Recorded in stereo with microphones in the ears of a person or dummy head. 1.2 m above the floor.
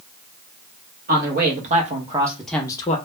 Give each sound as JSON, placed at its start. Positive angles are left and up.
{"t": 1.1, "sound": "a man speaking", "side_deg": -50, "distance_m": 0.9}